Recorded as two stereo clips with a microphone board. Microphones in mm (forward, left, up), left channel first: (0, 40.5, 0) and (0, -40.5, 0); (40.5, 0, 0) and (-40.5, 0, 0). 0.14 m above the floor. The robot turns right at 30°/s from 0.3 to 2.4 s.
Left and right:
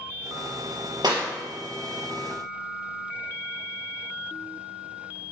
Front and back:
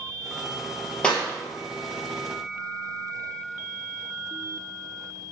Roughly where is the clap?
Right.